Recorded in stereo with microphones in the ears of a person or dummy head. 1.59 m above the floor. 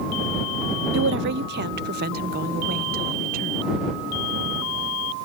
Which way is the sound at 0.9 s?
75° right (ahead or behind).